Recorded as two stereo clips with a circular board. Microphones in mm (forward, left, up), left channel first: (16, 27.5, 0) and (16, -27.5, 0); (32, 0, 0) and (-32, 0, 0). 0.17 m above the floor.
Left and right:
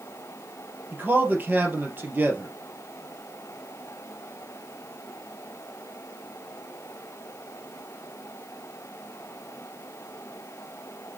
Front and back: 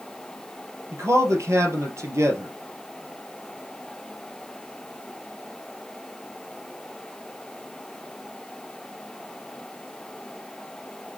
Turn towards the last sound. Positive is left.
turn(degrees=-140)